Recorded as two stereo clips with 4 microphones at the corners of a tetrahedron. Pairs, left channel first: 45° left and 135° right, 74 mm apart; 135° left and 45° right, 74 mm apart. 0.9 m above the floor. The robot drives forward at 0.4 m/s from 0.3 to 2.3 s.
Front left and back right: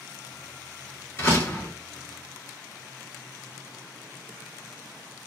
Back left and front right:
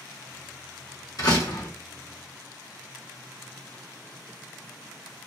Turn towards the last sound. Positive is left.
turn(degrees=125)